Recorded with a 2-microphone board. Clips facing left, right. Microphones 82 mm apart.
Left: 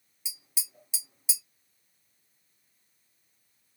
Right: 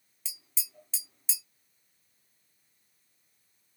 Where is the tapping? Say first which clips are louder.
Left 2 dB; 15° left (ahead or behind), 0.9 m.